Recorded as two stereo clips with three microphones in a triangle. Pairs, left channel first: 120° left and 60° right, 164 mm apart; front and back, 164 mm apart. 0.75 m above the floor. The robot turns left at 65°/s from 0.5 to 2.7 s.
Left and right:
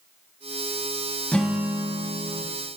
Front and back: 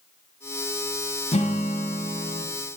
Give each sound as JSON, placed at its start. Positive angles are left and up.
{"t": 1.3, "sound": "a guitar", "azimuth_deg": 40, "distance_m": 0.9}